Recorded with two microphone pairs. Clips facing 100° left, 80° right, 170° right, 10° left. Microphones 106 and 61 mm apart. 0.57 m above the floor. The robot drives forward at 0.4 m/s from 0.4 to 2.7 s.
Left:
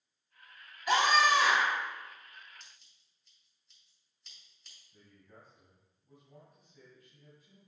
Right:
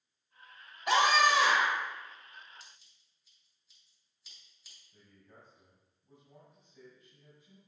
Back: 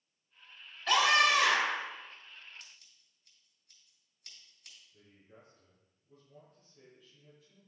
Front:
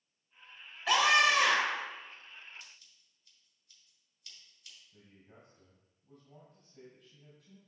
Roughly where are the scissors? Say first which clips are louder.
Right 2 dB, front 1 dB; behind.